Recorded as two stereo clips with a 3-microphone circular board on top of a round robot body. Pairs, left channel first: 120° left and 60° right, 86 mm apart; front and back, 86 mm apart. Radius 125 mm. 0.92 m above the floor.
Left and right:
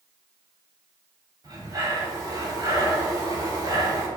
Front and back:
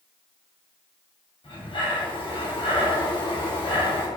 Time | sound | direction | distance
1.4 | breathing | 15° right | 4 m